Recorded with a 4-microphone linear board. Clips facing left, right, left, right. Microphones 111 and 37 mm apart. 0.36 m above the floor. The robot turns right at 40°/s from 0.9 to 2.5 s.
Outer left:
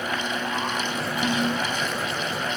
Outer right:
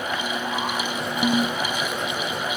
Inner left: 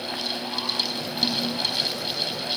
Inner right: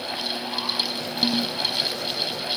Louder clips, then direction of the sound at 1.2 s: Outer right 3 dB, inner right 2 dB; 30° right (ahead or behind).